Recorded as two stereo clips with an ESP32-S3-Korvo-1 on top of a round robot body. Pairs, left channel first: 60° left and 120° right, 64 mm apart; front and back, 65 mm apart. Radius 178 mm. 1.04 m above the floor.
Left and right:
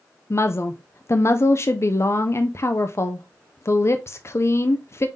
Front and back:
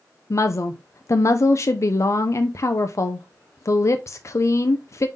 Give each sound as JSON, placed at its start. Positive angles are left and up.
{"t": 0.3, "sound": "a woman speaking", "azimuth_deg": 25, "distance_m": 0.6}